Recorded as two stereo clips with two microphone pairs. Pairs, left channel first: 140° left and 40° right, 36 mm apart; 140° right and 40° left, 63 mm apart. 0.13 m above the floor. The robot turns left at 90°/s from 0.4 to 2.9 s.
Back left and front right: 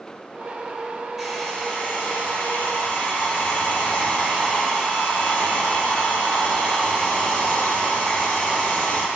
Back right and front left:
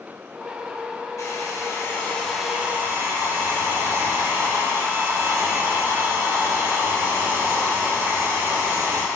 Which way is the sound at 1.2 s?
120° right.